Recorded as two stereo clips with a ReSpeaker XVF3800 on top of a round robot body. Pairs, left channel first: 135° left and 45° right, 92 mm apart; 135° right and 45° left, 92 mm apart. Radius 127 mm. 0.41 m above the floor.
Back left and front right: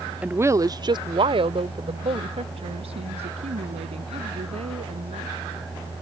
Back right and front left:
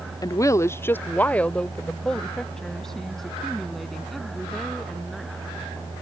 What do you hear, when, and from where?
0.2 s a woman speaking: 110° right; by 5.3 s 45° right